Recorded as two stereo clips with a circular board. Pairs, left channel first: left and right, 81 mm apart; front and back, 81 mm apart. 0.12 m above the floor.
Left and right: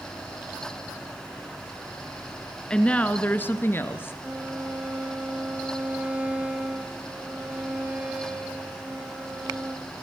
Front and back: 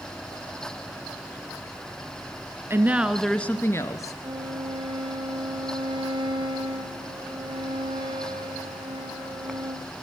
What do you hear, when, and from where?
2.7 s a woman speaking: 160° left, 1.3 m; by 4.1 s 35° left, 1.9 m
4.2 s a violin: 160° right, 2 m